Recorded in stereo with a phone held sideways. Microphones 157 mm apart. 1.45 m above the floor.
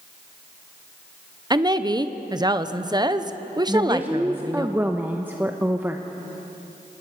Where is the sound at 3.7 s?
15° right (ahead or behind), 0.9 m.